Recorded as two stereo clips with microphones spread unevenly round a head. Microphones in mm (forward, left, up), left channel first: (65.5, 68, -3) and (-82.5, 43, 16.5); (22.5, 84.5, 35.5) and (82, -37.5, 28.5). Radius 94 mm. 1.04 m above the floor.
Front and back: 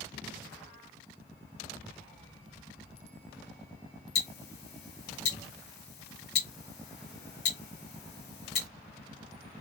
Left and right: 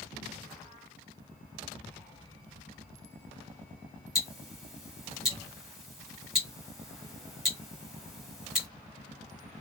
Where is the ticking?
25° left, 1.6 m.